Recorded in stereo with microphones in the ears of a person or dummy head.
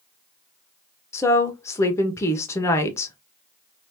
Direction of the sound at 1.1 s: 15° left (ahead or behind).